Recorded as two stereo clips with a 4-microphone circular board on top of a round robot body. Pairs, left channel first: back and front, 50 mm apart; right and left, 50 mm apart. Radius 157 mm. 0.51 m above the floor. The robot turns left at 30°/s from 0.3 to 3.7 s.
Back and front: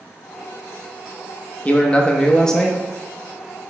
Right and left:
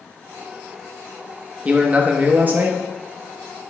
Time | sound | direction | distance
1.6 | a man speaking | 135° left | 0.8 m